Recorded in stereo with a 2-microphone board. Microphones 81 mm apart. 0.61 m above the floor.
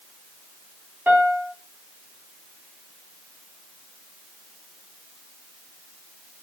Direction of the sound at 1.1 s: 25° right (ahead or behind).